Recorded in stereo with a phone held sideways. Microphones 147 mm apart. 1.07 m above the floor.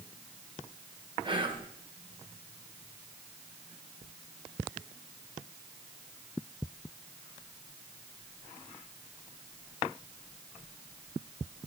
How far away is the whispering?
About 0.9 m.